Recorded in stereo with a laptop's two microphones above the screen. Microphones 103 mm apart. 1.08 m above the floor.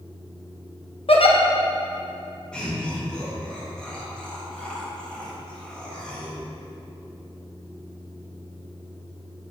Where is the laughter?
10° left (ahead or behind), 1.4 m.